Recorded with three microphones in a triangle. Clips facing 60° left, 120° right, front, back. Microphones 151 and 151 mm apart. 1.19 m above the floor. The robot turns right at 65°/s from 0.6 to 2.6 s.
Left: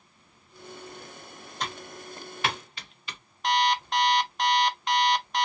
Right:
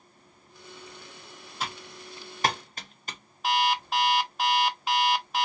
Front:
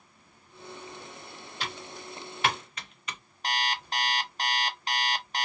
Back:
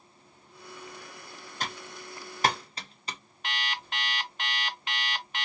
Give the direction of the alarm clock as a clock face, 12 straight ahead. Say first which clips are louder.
Left 1 dB, front 5 dB; 1 o'clock.